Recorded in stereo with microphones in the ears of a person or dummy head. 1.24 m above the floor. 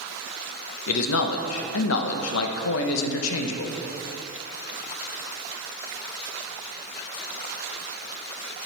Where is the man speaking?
90° left, 0.8 m.